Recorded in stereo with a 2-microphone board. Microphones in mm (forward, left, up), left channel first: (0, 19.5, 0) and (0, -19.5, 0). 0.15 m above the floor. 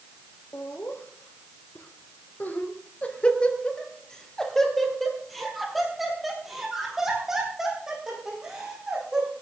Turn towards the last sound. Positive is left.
turn(degrees=-15)  # may be behind; listen again after turning